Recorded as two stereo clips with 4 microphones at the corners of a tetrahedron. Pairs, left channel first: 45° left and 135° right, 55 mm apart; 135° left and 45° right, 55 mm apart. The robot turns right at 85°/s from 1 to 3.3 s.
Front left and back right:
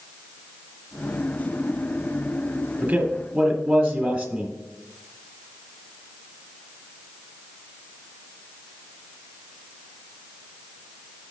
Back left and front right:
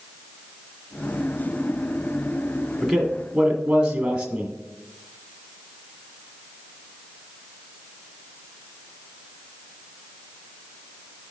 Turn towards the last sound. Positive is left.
turn(degrees=-105)